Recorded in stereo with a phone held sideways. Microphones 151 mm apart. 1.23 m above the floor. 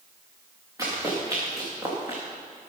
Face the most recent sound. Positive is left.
turn(degrees=-20)  # may be behind; listen again after turning